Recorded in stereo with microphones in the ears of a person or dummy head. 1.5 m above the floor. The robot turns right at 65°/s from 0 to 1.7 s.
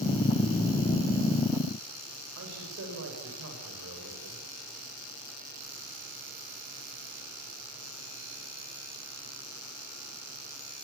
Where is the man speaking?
90° right, 8 m.